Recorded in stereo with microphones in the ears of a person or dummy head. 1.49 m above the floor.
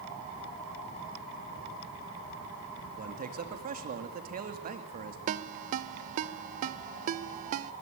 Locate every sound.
3.0 s a man speaking: 50° right (ahead or behind), 2 m
5.3 s a ringtone: 45° right (ahead or behind), 0.8 m